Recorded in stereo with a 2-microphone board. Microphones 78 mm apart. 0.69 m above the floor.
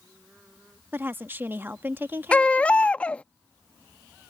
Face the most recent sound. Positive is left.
turn(degrees=15)  # may be behind; listen again after turning